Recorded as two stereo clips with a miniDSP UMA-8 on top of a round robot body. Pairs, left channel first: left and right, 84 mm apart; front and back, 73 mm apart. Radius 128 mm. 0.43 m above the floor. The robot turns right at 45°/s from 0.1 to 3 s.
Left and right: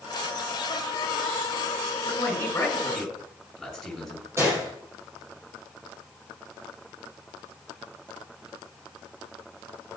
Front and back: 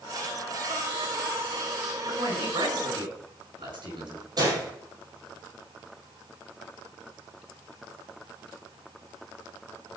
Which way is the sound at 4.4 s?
150° right.